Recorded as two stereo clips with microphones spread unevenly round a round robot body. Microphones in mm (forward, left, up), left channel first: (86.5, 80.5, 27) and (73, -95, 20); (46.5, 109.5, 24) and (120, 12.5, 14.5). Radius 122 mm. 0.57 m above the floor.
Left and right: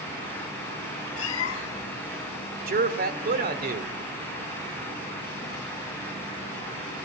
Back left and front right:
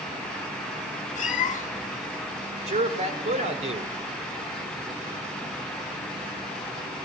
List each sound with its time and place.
1.1 s a cat meowing: 110° left, 1.1 m
2.7 s a man speaking: 70° right, 1.9 m